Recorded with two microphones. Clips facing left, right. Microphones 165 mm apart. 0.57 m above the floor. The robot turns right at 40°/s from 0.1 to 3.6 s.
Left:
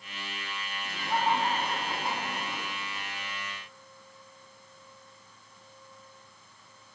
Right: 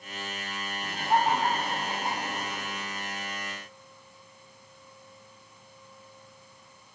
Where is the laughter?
65° right, 4.5 m; by 2.7 s 10° left, 4.5 m.